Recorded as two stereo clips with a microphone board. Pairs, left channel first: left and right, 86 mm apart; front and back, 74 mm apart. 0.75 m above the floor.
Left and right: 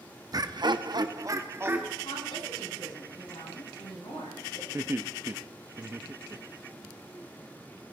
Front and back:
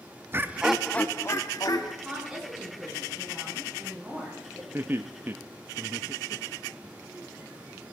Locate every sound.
0.3 s laughter: 125° right, 1.0 m; by 1.9 s 25° right, 1.7 m
2.0 s a woman speaking: 95° left, 8.5 m
4.7 s laughter: 135° right, 0.7 m